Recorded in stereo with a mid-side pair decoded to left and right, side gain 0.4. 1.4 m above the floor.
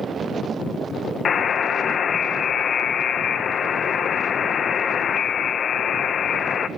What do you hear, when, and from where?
1.2 s a buzzer: 55° left, 1.4 m